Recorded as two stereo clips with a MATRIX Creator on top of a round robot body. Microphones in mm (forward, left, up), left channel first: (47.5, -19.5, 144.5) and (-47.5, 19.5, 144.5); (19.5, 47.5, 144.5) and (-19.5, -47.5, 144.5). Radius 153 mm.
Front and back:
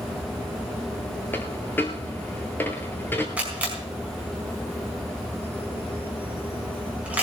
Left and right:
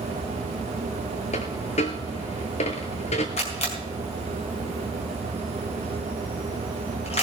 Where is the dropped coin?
50° left, 0.7 m.